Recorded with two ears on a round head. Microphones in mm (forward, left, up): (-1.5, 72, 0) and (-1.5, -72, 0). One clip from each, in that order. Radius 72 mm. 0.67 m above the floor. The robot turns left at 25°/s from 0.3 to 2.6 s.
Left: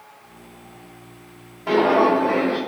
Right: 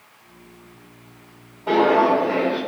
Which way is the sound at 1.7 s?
35° left (ahead or behind).